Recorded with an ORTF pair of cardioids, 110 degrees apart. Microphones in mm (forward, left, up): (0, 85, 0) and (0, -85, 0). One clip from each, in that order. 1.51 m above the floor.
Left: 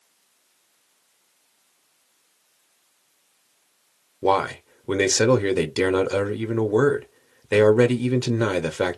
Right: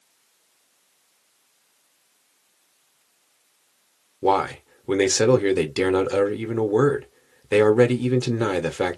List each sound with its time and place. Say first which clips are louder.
4.2 s a man speaking: even; 5° left, 0.6 m